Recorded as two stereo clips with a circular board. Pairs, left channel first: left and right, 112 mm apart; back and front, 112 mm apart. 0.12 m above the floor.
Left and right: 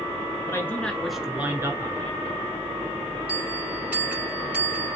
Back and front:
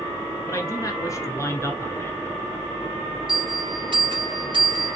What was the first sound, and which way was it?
A man speaking, 135° left.